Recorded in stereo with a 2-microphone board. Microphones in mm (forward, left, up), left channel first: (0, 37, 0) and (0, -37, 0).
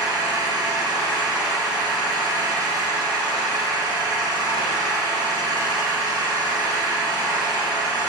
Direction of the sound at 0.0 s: 55° right (ahead or behind).